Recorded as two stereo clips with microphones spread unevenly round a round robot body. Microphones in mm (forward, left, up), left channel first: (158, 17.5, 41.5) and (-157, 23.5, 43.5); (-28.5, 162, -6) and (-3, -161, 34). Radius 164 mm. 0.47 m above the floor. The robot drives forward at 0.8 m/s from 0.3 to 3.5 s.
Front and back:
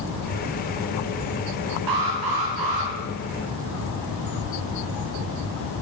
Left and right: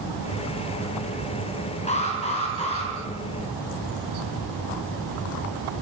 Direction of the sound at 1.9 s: 165° left.